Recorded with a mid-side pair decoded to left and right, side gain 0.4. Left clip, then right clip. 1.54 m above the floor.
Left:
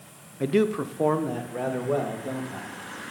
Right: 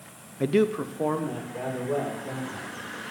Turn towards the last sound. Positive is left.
turn(degrees=50)